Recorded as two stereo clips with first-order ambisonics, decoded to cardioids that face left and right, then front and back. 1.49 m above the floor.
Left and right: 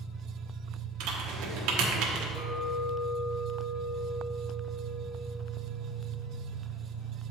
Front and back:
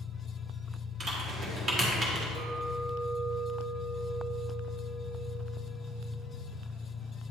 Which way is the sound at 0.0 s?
30° right.